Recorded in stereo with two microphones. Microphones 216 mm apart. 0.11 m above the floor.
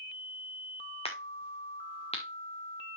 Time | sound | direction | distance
1.1 | a crack | 30° left (ahead or behind) | 2 m